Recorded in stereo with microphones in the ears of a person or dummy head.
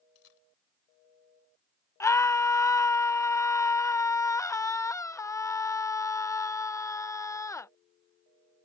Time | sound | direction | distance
0.1 | a camera shutter | 80° left | ?
2.0 | a scream | 5° left (ahead or behind) | ?